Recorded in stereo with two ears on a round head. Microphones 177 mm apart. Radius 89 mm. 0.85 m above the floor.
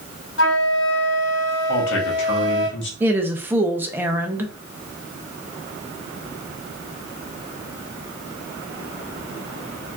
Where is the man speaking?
65° left (ahead or behind), 1.6 m.